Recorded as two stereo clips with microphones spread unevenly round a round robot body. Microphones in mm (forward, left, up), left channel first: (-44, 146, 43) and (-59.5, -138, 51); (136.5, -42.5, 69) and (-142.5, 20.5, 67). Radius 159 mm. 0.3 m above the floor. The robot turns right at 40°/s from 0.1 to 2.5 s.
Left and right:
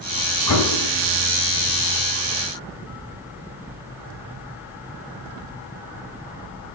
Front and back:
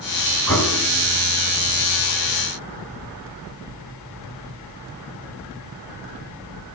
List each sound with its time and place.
0.5 s an explosion: 65° left, 3.5 m; by 0.9 s 85° left, 3.5 m